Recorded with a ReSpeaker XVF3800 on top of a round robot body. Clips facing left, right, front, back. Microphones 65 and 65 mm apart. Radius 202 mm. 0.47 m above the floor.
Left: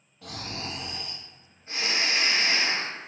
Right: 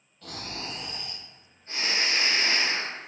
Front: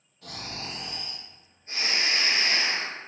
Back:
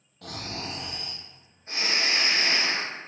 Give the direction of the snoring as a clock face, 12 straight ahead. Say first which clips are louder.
Left 1 dB, back 3 dB; 6 o'clock.